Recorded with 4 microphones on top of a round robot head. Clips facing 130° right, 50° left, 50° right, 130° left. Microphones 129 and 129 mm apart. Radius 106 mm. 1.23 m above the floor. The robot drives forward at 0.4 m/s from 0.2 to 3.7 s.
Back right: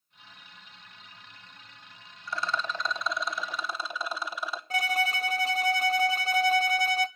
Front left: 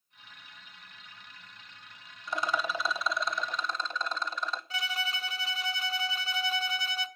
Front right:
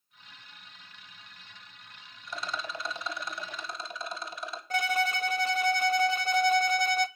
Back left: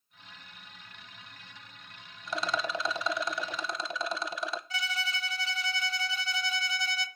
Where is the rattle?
115° left, 0.7 m; by 4.6 s 145° left, 1.1 m.